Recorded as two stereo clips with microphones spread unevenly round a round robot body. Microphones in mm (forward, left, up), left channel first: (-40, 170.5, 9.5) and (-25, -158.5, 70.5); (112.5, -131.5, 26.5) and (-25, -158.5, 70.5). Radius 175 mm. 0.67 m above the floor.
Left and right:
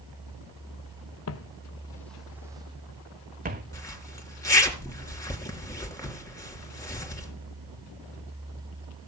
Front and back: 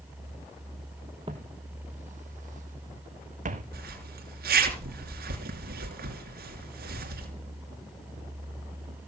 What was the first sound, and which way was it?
Footsteps, 140° left.